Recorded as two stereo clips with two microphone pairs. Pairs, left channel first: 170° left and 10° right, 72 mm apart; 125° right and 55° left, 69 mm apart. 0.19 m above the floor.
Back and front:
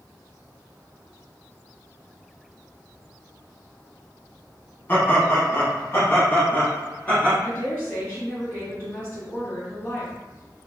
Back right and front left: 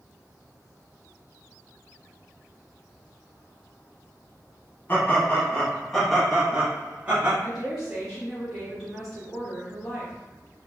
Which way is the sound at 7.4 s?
150° left.